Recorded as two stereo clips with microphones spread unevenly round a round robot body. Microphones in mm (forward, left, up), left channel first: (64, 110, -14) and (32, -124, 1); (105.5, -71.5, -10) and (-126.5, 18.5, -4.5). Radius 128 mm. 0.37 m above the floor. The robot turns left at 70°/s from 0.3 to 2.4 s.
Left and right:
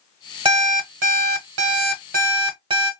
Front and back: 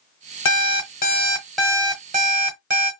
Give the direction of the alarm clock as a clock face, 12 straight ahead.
1 o'clock.